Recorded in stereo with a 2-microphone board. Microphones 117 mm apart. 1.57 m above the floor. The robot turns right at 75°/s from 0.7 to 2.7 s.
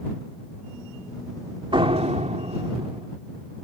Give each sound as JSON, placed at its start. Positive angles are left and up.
{"t": 1.7, "sound": "a door slam", "azimuth_deg": -130}